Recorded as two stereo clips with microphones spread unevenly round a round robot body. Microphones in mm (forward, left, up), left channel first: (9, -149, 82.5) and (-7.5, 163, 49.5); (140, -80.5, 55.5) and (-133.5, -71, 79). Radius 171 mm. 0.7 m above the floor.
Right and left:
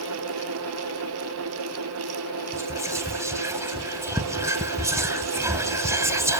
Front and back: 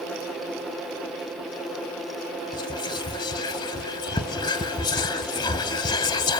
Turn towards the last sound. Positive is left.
turn(degrees=35)